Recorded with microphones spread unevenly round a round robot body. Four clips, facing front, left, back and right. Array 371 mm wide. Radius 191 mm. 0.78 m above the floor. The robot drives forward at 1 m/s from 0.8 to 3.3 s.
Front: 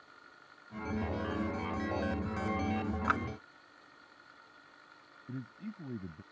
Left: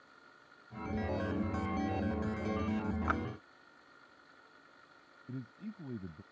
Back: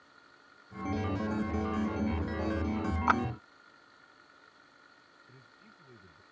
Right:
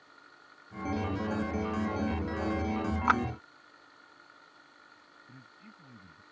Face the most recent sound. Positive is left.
turn(degrees=30)